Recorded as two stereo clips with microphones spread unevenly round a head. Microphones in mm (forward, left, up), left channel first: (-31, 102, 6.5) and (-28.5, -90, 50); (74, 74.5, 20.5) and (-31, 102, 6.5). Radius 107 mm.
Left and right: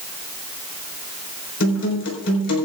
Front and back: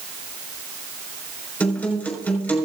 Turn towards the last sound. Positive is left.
turn(degrees=60)